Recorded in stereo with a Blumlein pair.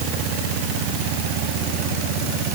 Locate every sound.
Only background noise.